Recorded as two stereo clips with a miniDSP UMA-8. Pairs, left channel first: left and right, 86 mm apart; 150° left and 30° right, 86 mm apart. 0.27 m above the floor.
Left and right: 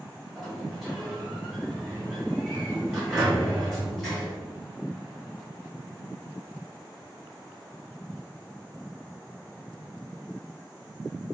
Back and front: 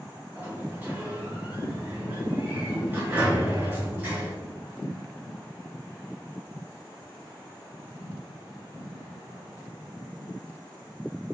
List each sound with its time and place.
0.3 s a sliding door: 5° right, 1.6 m